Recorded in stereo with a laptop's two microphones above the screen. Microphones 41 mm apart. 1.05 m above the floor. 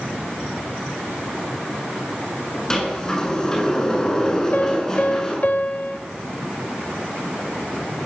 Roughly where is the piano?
Left.